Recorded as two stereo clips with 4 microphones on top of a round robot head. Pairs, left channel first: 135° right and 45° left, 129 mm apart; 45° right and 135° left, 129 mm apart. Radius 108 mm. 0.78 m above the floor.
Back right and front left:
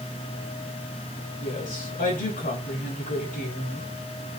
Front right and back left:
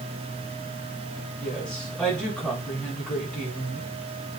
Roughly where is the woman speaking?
Behind right.